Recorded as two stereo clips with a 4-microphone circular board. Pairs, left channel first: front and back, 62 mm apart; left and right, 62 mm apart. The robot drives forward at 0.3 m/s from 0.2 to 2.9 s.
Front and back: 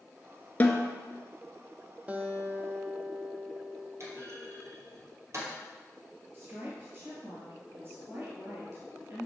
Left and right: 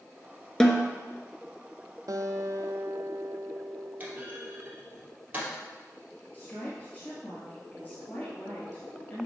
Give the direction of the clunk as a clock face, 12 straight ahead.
5 o'clock.